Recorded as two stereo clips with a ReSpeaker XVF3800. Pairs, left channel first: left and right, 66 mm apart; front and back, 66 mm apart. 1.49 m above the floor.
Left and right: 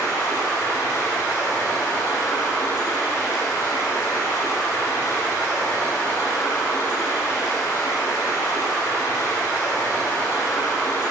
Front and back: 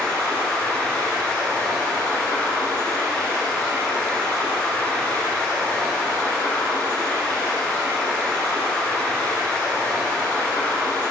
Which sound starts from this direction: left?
Running water, at 0.0 s.